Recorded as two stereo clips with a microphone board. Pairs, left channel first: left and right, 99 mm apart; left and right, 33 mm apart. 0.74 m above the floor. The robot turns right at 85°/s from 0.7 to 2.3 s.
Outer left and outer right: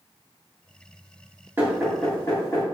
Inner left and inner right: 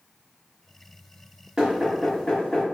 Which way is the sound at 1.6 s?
25° right (ahead or behind).